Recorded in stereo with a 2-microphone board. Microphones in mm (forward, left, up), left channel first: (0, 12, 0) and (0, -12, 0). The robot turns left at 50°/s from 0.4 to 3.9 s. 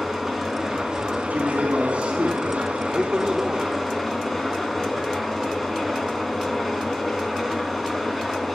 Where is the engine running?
10° right, 3 m; by 8.6 s 175° left, 3 m.